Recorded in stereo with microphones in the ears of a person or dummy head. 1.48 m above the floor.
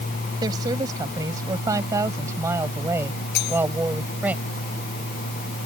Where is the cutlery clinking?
55° left (ahead or behind).